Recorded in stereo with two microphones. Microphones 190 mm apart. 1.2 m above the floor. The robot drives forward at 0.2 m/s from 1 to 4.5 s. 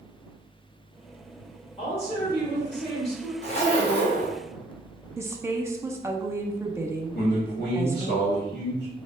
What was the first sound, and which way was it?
A woman speaking, 30° left (ahead or behind).